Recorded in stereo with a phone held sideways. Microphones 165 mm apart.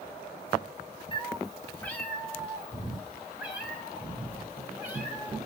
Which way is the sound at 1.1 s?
30° left (ahead or behind).